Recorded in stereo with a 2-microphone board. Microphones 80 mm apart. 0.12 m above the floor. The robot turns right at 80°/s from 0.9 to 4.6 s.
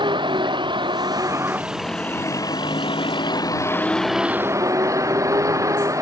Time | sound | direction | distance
0.0 | a vehicle | 75° right | ?